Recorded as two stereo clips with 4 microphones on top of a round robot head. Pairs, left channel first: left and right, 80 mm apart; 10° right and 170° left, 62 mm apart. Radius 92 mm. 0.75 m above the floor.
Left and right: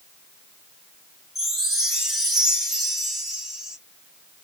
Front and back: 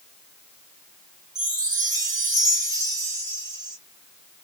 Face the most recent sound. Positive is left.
turn(degrees=-175)